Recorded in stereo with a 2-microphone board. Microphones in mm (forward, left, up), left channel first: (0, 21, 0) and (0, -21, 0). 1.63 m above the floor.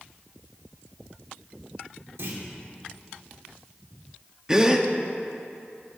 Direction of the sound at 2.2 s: 70° right (ahead or behind).